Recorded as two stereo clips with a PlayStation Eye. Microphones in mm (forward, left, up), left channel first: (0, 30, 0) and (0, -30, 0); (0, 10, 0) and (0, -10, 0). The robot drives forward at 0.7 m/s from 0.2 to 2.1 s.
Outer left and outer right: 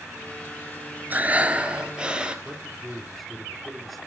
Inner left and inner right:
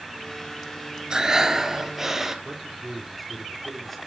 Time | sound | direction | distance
1.1 | breathing | 30° right (ahead or behind) | 0.9 m
2.5 | a man speaking | 5° left (ahead or behind) | 3 m